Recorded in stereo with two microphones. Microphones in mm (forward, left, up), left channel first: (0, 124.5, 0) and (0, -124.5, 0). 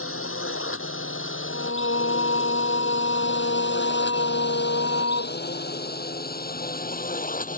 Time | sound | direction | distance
0.0 | a drone | 60° left (ahead or behind) | ?
1.5 | singing | 60° left (ahead or behind) | ?